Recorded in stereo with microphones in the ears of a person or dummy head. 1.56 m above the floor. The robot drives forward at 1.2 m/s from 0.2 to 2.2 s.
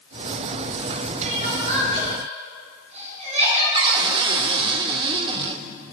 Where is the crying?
40° right (ahead or behind), 9.5 m.